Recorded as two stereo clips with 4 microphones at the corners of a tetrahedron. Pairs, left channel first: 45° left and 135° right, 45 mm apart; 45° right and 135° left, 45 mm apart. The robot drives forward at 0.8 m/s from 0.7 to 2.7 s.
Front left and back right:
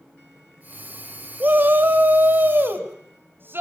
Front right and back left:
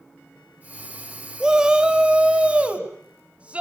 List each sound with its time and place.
1.4 s a shout: 155° right, 2.0 m; by 3.6 s 165° right, 3 m